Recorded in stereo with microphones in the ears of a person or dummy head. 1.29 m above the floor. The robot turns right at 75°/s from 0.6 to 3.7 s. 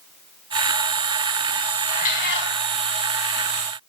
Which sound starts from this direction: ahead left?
A cat meowing, at 1.9 s.